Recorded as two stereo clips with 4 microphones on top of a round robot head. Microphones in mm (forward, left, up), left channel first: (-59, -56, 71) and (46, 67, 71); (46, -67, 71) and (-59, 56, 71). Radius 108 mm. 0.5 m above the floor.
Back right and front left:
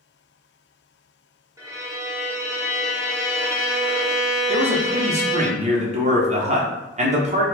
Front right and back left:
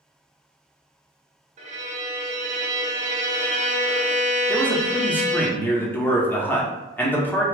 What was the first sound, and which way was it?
A violin, 115° left.